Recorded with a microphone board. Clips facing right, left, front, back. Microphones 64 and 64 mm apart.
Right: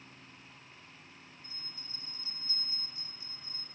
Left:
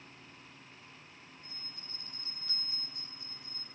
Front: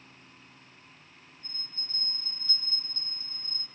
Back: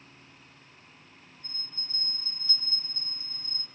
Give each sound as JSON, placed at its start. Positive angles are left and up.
{"t": 1.4, "sound": "a bell", "azimuth_deg": 100, "distance_m": 8.5}